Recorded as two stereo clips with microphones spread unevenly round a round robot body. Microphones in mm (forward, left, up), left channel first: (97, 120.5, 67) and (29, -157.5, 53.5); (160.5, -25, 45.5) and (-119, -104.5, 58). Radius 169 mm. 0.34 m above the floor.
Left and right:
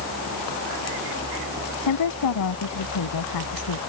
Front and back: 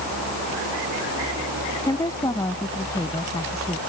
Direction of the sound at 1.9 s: 95° left.